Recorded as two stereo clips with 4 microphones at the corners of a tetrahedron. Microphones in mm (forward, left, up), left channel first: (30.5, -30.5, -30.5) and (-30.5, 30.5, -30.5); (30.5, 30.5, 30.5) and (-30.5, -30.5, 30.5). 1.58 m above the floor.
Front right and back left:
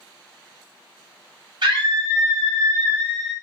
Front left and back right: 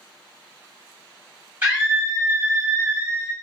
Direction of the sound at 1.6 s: 160° left.